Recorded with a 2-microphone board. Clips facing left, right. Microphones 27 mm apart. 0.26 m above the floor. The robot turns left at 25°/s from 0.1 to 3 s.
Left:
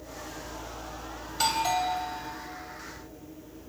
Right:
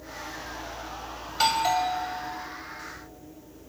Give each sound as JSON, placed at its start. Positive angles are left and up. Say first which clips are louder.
{"t": 1.3, "sound": "a doorbell", "louder": "right 3 dB", "side_deg": -20, "distance_m": 1.7}